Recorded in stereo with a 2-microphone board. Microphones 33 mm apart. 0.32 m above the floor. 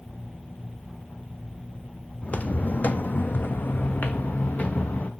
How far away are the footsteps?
About 0.8 m.